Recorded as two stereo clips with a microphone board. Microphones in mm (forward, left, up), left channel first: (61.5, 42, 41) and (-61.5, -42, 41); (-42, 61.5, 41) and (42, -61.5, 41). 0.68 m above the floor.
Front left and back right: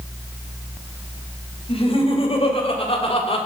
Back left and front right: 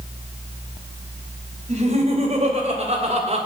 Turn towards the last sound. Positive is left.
turn(degrees=-10)